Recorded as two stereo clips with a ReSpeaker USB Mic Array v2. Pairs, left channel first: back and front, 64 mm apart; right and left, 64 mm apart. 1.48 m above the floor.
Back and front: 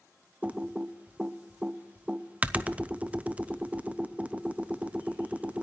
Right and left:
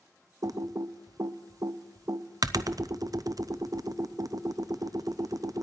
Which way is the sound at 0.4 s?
70° left.